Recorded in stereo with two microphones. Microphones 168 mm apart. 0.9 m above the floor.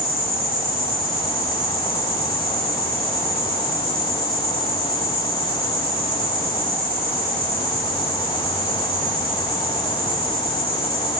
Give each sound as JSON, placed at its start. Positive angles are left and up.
{"t": 0.0, "sound": "an insect", "side_deg": 70, "distance_m": 5.0}